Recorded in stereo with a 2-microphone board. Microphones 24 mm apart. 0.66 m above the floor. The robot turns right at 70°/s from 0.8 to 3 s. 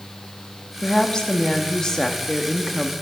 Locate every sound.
0.8 s a woman speaking: 55° left, 1.0 m; by 2.9 s 155° right, 1.0 m